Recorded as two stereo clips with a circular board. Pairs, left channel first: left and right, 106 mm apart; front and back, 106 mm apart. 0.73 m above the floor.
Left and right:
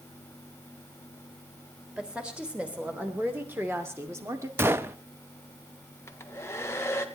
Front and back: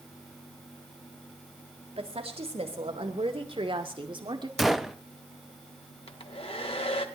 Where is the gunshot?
95° right, 0.6 m.